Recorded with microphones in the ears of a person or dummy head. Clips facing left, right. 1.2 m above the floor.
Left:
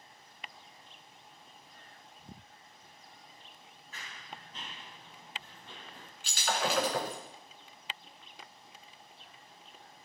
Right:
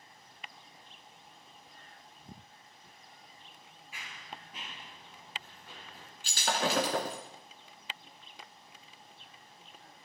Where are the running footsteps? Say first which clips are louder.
Right 1 dB; 15° right (ahead or behind), 1.4 m; by 6.1 s 10° right (ahead or behind), 3 m.